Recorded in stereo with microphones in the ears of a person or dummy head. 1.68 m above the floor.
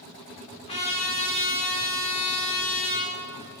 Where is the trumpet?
30° left (ahead or behind), 1.1 m.